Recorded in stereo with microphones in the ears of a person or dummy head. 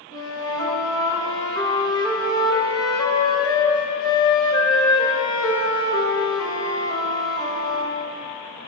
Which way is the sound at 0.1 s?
25° left (ahead or behind).